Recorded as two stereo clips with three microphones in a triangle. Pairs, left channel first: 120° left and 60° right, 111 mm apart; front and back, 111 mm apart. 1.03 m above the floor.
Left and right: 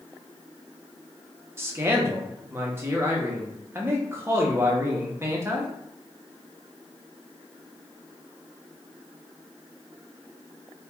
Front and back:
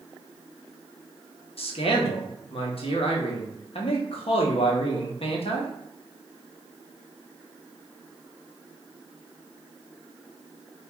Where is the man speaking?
Straight ahead, 0.6 m.